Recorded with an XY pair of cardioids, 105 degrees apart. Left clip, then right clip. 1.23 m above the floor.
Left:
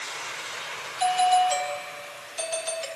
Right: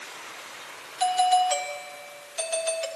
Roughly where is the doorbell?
Ahead.